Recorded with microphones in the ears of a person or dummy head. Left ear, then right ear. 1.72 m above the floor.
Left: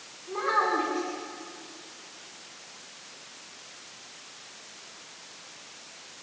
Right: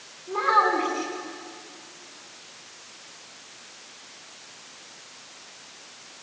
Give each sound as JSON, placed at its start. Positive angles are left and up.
{"t": 0.3, "sound": "a child speaking", "side_deg": -10, "distance_m": 8.0}